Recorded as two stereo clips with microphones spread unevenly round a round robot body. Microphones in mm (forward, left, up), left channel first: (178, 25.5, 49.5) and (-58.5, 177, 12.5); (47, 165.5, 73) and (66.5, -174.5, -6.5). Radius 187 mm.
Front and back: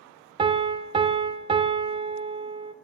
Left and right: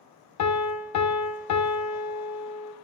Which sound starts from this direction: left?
A piano, at 0.4 s.